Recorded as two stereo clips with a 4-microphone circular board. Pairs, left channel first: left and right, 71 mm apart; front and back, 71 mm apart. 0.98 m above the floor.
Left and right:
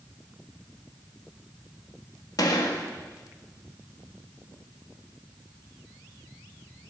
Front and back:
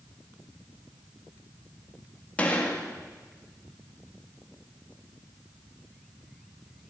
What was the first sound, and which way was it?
A gunshot, 70° left.